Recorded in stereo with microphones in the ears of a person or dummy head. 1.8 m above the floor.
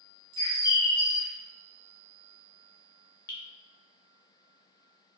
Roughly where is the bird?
Centre.